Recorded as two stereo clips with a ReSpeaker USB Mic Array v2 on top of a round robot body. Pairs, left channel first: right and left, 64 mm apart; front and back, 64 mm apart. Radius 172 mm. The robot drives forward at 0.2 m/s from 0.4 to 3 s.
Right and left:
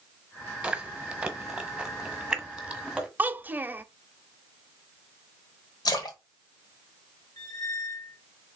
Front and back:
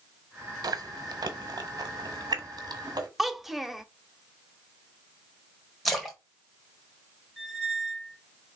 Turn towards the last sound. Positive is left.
turn(degrees=-80)